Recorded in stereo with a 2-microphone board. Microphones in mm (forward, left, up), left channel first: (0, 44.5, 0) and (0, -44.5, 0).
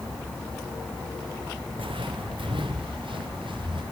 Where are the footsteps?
75° right (ahead or behind), 0.9 m; by 3.8 s 65° right (ahead or behind), 2 m.